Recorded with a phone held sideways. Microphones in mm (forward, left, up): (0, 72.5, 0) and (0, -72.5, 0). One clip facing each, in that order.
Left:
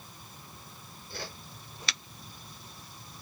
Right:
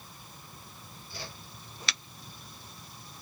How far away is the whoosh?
About 4.5 m.